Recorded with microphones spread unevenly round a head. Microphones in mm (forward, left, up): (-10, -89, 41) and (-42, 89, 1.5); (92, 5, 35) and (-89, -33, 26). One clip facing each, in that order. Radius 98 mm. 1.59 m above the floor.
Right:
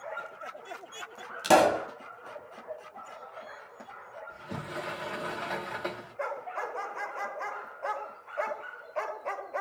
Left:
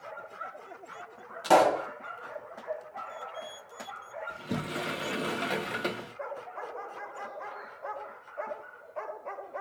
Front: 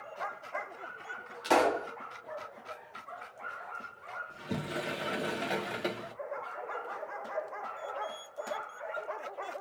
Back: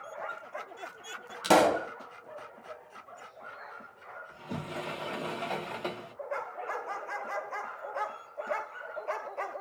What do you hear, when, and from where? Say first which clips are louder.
1.4 s a pop: even, back 4 dB; 140° right, 1.5 m
4.3 s a sliding door: left 5 dB, front 2 dB; 60° left, 0.7 m